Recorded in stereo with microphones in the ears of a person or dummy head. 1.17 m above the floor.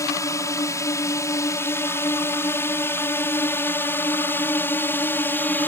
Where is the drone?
15° left (ahead or behind); by 5.7 s 10° left (ahead or behind).